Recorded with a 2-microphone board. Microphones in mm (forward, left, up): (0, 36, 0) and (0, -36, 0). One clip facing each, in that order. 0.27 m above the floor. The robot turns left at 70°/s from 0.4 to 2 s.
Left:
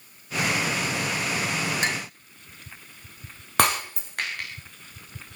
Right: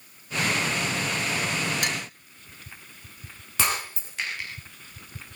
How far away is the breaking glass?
About 6 m.